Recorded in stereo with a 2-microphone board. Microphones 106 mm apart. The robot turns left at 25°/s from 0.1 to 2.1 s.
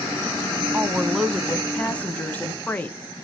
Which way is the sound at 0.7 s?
165° right.